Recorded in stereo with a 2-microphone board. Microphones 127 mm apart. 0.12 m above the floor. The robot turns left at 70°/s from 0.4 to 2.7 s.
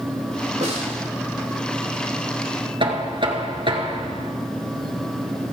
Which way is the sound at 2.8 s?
40° right (ahead or behind).